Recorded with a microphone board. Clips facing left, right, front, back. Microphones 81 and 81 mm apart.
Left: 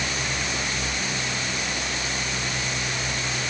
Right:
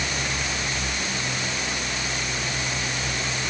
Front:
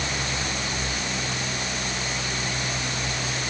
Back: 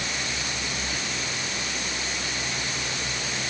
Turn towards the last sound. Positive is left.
No sound to turn to.